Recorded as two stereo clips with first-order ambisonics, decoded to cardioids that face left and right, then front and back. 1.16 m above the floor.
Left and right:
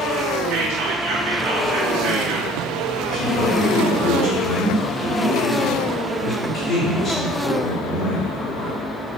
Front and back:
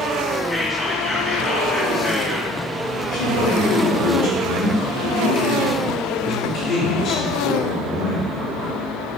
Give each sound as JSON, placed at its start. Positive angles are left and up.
{"t": 0.5, "sound": "whispering", "azimuth_deg": -85, "distance_m": 1.0}
{"t": 3.1, "sound": "a man speaking", "azimuth_deg": 45, "distance_m": 1.9}